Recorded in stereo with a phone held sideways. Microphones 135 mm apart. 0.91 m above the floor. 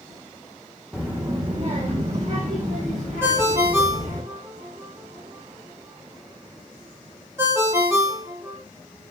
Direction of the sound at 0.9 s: 5° right (ahead or behind).